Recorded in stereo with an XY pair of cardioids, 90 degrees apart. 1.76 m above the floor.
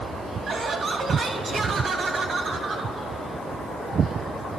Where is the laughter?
60° right, 2.5 m.